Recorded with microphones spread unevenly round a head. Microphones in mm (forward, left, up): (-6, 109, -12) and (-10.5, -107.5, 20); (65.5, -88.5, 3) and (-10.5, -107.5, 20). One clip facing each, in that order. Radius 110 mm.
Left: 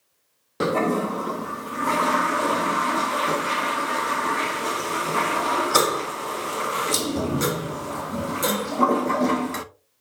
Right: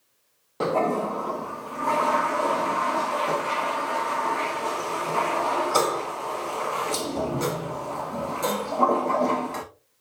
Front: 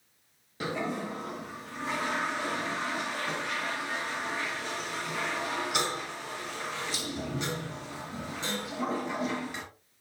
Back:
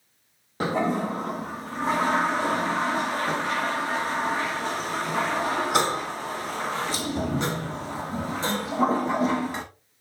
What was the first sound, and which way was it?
A toilet flushing, 155° left.